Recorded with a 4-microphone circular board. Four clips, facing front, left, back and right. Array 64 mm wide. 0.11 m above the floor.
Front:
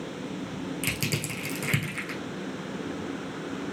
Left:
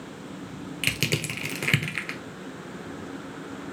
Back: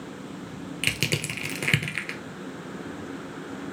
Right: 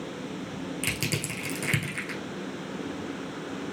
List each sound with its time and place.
0.8 s crushing: 140° left, 1.0 m